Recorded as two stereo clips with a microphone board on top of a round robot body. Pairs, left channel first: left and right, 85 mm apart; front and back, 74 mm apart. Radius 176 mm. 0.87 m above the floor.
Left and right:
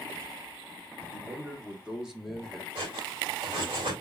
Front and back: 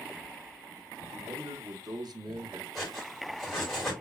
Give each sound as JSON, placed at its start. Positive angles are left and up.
{"t": 1.1, "sound": "a man speaking", "azimuth_deg": -155, "distance_m": 2.0}
{"t": 2.8, "sound": "cutlery clinking", "azimuth_deg": -85, "distance_m": 3.0}